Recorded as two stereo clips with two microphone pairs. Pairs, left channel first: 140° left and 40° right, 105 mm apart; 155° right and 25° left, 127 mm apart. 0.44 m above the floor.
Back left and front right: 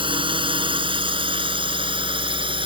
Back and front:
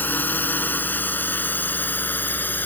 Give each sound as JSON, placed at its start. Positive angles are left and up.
{"t": 0.0, "sound": "a drone", "azimuth_deg": -75}